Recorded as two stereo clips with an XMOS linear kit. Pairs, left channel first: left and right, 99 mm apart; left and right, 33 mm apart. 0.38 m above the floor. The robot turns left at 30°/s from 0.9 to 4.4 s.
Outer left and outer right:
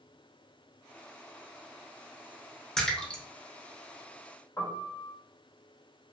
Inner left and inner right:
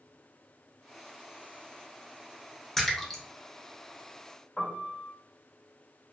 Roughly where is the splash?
Centre.